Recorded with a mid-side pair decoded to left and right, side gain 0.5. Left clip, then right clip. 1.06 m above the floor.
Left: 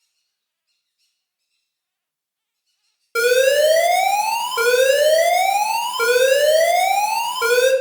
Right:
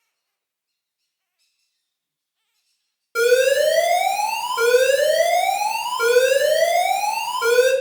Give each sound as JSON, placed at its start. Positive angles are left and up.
{"t": 3.1, "sound": "an alarm", "azimuth_deg": 35, "distance_m": 0.6}